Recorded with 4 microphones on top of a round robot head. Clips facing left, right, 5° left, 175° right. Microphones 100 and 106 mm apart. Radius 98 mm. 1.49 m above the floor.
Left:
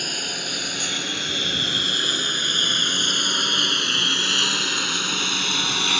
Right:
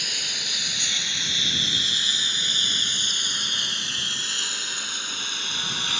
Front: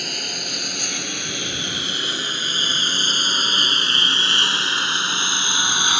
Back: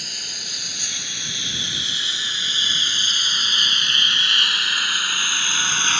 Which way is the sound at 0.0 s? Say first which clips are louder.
Left 6 dB, front 9 dB; 45° left.